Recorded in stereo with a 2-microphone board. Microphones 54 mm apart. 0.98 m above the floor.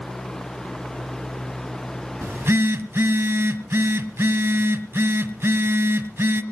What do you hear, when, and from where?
2.2 s a phone buzzing: 50° right (ahead or behind), 1.1 m